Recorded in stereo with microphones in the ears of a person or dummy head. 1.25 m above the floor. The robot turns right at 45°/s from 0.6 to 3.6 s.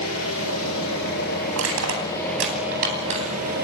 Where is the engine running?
95° left, 8.5 m; by 3.6 s 130° right, 8.5 m.